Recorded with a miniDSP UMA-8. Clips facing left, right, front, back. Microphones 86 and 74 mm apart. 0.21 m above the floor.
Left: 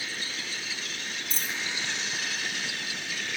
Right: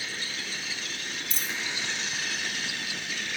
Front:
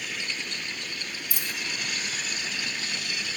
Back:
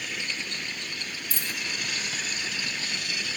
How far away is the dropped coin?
About 0.8 m.